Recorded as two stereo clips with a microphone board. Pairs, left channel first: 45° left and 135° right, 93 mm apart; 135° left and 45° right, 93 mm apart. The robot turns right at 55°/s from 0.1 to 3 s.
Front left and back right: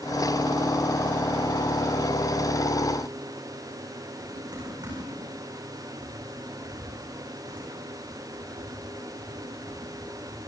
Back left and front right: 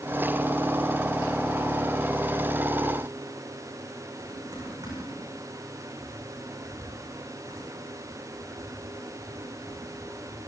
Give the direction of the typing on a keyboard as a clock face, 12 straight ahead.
3 o'clock.